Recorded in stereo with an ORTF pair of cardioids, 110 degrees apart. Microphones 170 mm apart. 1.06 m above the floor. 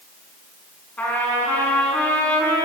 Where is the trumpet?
10° left, 5.5 m.